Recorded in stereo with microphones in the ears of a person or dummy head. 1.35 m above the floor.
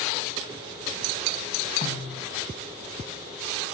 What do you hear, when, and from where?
1.8 s a snare drum: 35° left (ahead or behind), 4.5 m